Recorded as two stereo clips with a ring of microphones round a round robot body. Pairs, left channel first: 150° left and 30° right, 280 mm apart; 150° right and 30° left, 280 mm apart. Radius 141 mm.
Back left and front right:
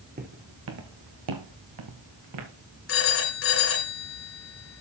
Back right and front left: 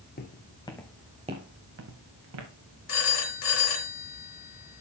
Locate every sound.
0.2 s footsteps: 90° right, 1.9 m; by 2.5 s straight ahead, 2.5 m
2.9 s a phone ringing: 165° right, 3.5 m